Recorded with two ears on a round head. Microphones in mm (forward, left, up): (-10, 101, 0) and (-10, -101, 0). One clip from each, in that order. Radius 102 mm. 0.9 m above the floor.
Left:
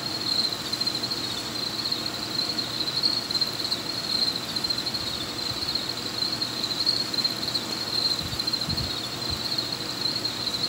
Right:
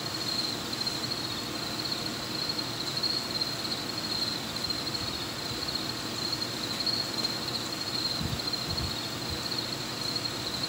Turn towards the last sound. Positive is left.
turn(degrees=25)  # may be behind; listen again after turning